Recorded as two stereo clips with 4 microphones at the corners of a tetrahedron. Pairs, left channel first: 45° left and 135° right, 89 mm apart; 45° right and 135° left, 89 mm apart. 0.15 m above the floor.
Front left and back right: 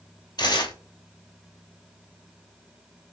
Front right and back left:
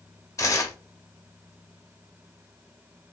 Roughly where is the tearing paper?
Ahead.